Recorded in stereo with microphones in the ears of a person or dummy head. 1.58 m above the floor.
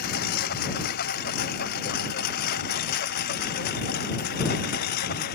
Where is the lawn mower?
55° left (ahead or behind); by 5.4 s 50° left (ahead or behind).